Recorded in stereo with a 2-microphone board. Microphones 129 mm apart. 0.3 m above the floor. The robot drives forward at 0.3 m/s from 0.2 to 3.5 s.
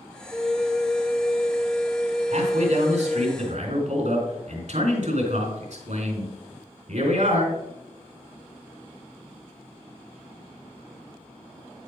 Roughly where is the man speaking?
Right.